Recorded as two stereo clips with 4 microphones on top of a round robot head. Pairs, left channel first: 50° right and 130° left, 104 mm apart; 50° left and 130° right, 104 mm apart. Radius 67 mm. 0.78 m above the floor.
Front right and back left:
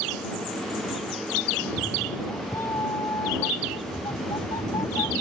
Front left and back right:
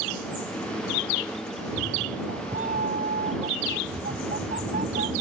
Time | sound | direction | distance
1.6 | a cat meowing | 125° right | ?